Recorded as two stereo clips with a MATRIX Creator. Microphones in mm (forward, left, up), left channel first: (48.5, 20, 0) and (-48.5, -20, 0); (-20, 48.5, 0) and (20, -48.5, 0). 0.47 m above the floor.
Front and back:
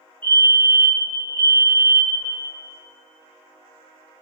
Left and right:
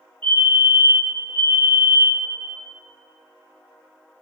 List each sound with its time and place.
0.2 s a fire alarm: 45° right, 3 m